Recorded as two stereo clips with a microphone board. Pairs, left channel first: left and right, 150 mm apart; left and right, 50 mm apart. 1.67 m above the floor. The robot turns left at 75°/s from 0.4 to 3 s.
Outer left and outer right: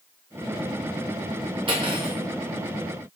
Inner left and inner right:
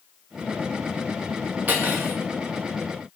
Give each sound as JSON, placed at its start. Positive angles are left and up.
{"t": 1.7, "sound": "cutlery clinking", "azimuth_deg": -95, "distance_m": 0.9}